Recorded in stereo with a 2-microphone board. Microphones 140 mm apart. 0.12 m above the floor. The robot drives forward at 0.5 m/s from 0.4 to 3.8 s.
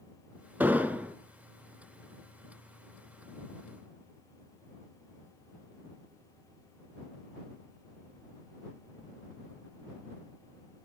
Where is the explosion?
10° right (ahead or behind), 0.7 m.